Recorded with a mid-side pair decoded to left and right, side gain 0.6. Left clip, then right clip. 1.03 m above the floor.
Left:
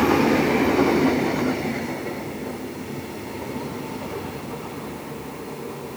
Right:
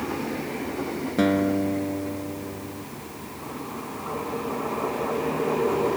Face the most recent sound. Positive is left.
turn(degrees=-70)